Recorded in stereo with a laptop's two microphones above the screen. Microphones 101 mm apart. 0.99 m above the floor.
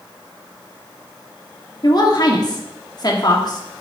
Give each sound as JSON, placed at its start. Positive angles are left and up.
{"t": 1.8, "sound": "a woman speaking", "side_deg": 45, "distance_m": 1.8}